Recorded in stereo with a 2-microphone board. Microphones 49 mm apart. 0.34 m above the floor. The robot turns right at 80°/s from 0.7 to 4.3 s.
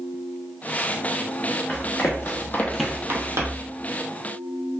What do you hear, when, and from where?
1.7 s running footsteps: 30° left (ahead or behind), 1.5 m; by 3.7 s 30° right (ahead or behind), 1.2 m